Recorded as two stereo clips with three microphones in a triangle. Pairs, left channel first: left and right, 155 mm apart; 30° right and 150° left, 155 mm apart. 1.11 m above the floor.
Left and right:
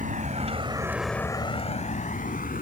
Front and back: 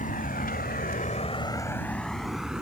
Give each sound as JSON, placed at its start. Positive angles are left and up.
{"t": 0.0, "sound": "a vehicle", "azimuth_deg": -60}